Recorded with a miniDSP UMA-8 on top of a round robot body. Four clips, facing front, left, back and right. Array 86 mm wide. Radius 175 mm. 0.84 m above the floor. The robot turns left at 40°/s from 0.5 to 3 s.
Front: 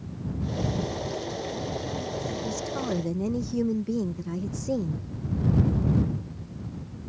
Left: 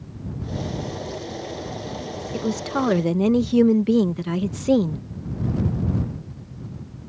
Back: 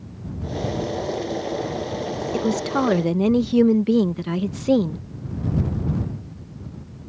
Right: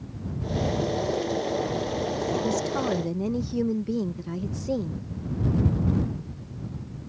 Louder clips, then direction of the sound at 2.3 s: Left 6 dB, back 9 dB; 165° left.